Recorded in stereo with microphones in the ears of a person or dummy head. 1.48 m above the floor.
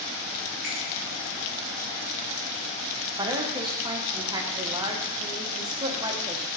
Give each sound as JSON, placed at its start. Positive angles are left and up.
{"t": 0.6, "sound": "a finger snap", "side_deg": 5, "distance_m": 2.5}
{"t": 3.2, "sound": "a woman speaking", "side_deg": -20, "distance_m": 0.9}